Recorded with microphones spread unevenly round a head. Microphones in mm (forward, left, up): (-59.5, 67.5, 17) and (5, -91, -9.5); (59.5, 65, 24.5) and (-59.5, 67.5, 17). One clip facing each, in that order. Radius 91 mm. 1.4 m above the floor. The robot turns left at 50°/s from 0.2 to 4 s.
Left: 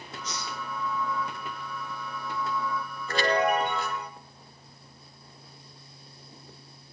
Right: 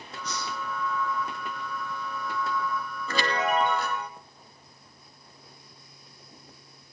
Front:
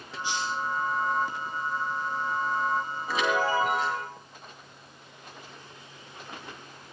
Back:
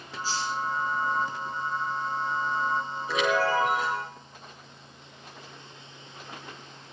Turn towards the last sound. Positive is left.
turn(degrees=-105)